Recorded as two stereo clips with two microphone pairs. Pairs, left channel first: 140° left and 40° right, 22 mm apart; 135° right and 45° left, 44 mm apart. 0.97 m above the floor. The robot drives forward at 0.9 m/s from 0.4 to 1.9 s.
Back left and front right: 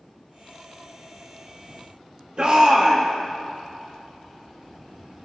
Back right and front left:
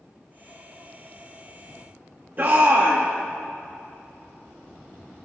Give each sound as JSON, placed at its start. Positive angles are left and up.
{"t": 2.4, "sound": "a shout", "azimuth_deg": 0, "distance_m": 1.4}